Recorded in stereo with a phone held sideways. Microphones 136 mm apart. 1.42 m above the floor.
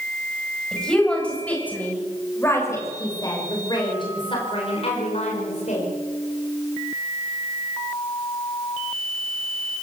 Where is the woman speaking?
5° left (ahead or behind), 8 m; by 5.9 s 60° left (ahead or behind), 6 m.